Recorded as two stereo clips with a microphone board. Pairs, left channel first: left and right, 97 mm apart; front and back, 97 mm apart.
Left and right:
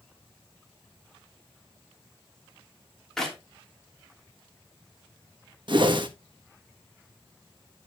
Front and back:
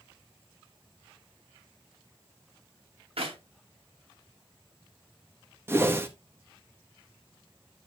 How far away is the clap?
About 2.5 m.